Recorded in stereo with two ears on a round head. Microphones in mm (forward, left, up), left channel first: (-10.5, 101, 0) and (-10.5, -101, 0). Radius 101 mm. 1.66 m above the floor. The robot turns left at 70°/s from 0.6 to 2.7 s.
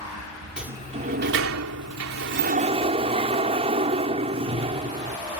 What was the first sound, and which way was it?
A sliding door, 5° right.